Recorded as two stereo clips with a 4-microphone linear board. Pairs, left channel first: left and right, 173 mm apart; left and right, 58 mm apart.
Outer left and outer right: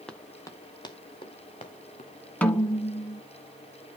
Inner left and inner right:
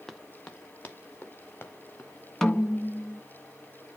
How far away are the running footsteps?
About 1.3 m.